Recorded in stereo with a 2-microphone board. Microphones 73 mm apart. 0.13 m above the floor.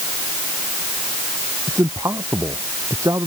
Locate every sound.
1.7 s a man speaking: 45° right (ahead or behind)